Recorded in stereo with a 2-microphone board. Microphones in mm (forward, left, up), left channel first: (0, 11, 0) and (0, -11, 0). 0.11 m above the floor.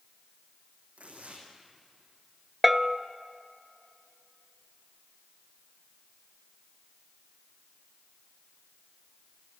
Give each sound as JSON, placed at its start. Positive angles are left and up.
{"t": 1.0, "sound": "tearing paper", "side_deg": -75, "distance_m": 4.5}
{"t": 2.6, "sound": "a bell", "side_deg": -5, "distance_m": 0.5}